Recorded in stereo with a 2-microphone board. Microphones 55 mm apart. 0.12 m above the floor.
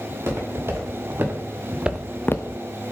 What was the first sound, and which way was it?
Footsteps, 45° right (ahead or behind).